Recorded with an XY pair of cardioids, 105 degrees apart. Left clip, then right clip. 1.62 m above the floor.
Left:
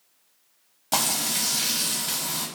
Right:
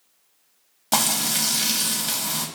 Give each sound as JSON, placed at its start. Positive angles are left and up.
{"t": 0.9, "sound": "frying", "azimuth_deg": -25, "distance_m": 0.7}